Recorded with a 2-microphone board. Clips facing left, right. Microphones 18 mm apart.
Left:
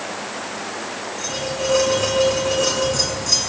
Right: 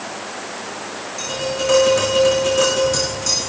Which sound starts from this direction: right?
Tapping, at 1.2 s.